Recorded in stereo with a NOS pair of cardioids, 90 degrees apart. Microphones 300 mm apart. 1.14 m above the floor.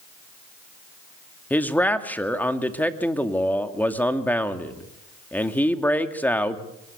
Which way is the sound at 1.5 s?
5° left.